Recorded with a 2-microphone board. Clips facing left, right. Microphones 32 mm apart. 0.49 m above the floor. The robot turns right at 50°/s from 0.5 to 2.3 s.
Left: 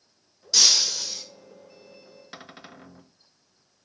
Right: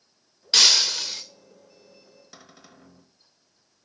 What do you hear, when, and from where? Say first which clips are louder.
0.5 s breaking glass: right 3 dB; 100° right, 1.0 m; by 1.2 s 65° right, 1.0 m
2.3 s a cupboard door: left 7 dB; 50° left (ahead or behind), 0.7 m